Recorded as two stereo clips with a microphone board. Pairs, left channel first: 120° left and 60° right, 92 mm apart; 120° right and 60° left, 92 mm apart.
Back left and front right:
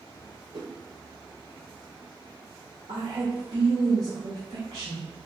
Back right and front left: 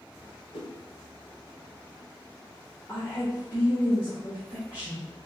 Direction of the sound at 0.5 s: 110° right.